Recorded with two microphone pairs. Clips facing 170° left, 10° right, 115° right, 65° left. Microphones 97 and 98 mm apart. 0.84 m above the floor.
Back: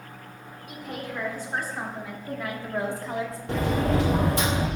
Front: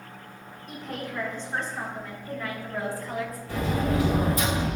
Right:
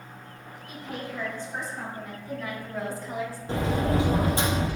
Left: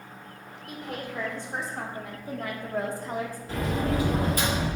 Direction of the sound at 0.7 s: 85° left.